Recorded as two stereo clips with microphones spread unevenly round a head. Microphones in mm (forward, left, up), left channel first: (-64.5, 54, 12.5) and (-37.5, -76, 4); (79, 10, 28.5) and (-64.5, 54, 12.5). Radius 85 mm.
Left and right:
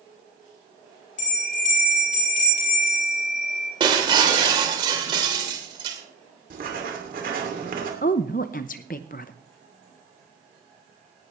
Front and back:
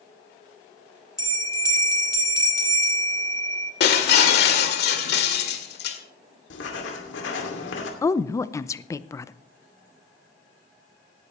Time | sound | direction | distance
1.2 | a bell | 50° left | 4.5 m
3.8 | breaking glass | 10° right | 2.0 m
6.5 | writing | 30° right | 2.5 m
8.0 | a woman speaking | 55° left | 0.6 m